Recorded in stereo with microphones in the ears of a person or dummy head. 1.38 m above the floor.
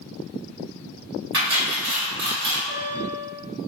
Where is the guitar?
65° right (ahead or behind), 1.0 m.